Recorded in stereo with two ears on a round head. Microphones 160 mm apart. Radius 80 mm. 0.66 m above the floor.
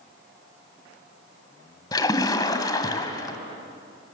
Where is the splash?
20° left (ahead or behind), 1.7 m.